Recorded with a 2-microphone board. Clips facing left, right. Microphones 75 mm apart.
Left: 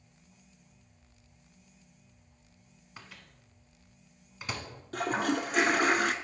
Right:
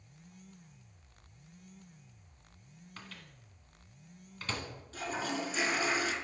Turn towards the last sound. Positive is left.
turn(degrees=60)  # may be behind; listen again after turning